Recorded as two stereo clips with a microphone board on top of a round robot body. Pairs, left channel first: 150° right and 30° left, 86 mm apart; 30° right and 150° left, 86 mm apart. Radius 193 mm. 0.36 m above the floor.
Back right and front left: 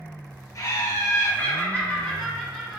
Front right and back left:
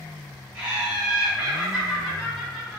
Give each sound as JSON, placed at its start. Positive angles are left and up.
{"t": 0.6, "sound": "laughter", "azimuth_deg": -135, "distance_m": 1.6}